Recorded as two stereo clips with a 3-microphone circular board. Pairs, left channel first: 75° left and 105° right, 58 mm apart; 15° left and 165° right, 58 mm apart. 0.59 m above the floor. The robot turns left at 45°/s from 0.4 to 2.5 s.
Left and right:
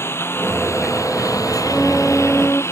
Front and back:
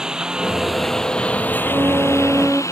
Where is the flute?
170° left; by 2.6 s 130° left.